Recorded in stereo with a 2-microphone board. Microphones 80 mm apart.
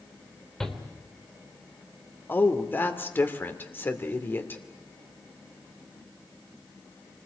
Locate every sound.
0.6 s a shout: 5° left (ahead or behind), 3.5 m
2.3 s a woman speaking: 25° left (ahead or behind), 2.5 m